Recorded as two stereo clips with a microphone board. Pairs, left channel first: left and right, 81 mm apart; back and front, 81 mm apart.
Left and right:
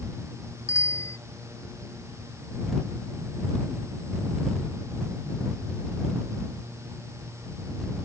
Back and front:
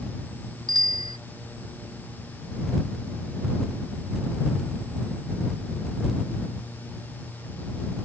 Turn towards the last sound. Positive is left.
turn(degrees=35)